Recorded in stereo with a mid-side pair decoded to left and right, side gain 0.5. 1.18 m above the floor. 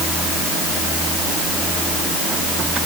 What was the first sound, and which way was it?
Only background noise.